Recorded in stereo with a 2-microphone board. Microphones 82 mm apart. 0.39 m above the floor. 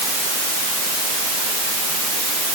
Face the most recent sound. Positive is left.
No sound to turn to.